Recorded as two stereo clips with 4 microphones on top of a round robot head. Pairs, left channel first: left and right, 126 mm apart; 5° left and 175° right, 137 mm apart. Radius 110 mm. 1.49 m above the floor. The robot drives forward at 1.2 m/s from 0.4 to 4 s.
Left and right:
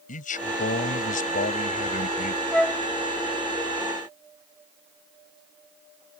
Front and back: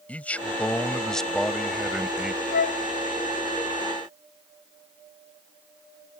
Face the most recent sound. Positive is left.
turn(degrees=175)